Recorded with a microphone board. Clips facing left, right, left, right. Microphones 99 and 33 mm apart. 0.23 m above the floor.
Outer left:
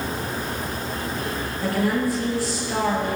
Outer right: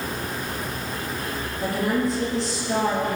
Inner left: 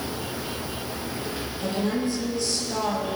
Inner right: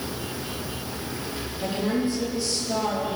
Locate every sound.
1.6 s a woman speaking: 20° right (ahead or behind), 5.5 m